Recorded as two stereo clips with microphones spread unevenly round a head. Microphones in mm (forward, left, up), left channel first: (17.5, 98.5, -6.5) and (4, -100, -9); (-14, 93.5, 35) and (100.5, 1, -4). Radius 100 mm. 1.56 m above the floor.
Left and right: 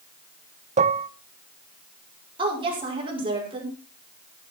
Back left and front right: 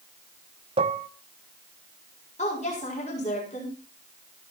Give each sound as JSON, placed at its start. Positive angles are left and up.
{"t": 0.8, "sound": "dishes clattering", "azimuth_deg": -95, "distance_m": 0.6}
{"t": 2.4, "sound": "a woman speaking", "azimuth_deg": -160, "distance_m": 5.5}